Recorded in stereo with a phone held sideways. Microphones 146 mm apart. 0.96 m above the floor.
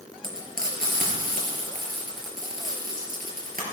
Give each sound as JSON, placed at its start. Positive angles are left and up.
{"t": 0.2, "sound": "frying", "side_deg": -75, "distance_m": 4.0}